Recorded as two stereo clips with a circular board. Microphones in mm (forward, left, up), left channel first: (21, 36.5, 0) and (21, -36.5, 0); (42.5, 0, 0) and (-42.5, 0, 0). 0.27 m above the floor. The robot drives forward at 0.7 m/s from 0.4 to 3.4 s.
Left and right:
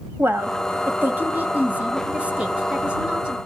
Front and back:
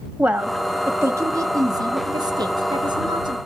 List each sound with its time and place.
0.2 s a woman speaking: 115° right, 1.2 m; by 3.4 s 165° right, 2.5 m